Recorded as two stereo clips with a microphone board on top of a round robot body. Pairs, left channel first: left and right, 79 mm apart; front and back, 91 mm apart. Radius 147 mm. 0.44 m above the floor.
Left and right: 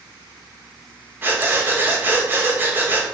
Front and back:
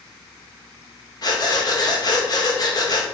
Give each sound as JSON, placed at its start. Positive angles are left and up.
{"t": 1.2, "sound": "breathing", "azimuth_deg": -30, "distance_m": 1.8}